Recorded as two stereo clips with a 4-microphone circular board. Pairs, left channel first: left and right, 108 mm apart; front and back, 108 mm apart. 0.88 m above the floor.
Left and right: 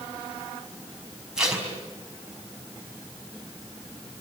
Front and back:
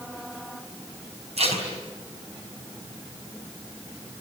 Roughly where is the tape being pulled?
Behind.